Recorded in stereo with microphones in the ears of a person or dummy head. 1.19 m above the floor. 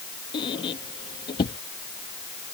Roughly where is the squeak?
Left.